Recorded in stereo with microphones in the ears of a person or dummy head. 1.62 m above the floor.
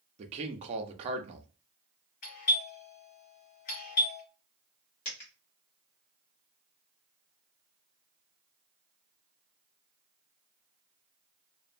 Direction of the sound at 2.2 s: 50° left (ahead or behind).